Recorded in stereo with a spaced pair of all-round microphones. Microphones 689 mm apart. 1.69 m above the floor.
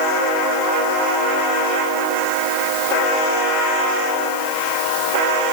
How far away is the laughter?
No laughter in this recording.